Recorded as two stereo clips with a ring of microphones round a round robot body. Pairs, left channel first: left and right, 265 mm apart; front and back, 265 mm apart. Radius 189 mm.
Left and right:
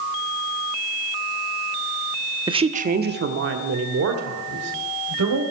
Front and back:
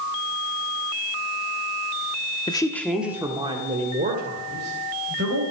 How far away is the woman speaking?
About 1.0 m.